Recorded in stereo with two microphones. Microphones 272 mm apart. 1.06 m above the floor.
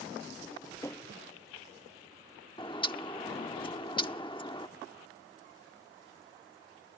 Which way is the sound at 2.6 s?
20° left (ahead or behind).